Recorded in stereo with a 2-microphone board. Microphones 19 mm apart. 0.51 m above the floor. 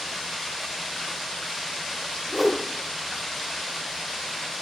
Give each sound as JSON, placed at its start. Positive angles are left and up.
{"t": 2.3, "sound": "a whoosh", "side_deg": 5, "distance_m": 0.6}